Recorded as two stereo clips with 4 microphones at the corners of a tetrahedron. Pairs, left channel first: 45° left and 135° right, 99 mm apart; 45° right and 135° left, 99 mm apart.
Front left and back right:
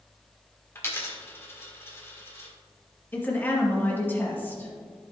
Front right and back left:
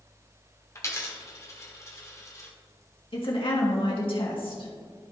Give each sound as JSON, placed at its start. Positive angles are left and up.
{"t": 0.8, "sound": "a dropped coin", "azimuth_deg": -5, "distance_m": 1.6}
{"t": 3.1, "sound": "a woman speaking", "azimuth_deg": -25, "distance_m": 2.0}